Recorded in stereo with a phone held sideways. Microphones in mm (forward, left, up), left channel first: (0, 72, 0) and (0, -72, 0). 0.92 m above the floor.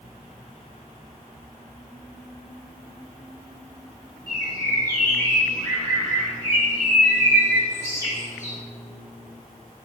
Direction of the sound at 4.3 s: 25° left (ahead or behind).